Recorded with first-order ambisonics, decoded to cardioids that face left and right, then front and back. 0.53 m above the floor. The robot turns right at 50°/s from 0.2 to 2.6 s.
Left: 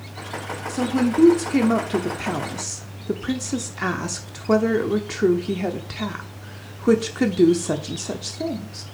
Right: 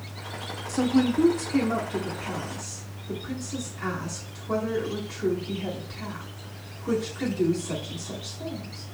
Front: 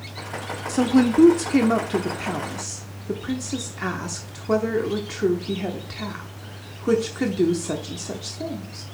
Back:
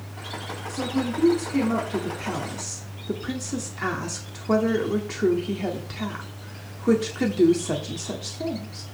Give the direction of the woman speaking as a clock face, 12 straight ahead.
12 o'clock.